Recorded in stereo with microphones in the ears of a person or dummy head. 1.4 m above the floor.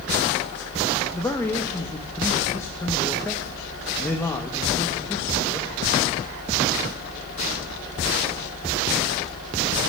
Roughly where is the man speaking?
Centre.